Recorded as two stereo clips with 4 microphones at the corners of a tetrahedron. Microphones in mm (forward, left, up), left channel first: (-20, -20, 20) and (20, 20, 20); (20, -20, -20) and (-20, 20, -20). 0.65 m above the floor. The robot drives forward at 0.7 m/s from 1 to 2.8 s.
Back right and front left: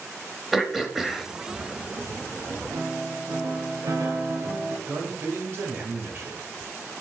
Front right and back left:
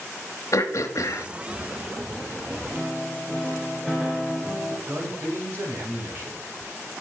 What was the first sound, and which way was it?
Throat clearing, 40° right.